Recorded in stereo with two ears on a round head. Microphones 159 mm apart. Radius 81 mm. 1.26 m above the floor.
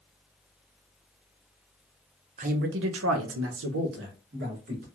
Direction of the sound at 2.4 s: 35° right (ahead or behind).